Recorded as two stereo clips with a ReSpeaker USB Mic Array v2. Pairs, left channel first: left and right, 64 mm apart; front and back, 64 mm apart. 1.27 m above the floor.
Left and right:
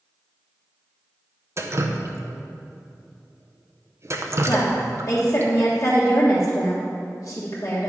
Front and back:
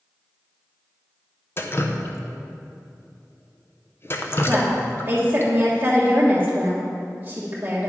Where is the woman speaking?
125° left, 1.4 m.